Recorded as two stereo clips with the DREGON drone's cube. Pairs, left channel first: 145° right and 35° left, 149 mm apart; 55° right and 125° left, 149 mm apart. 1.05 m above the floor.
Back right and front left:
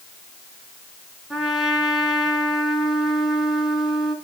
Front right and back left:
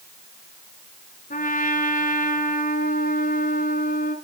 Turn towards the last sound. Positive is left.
turn(degrees=-55)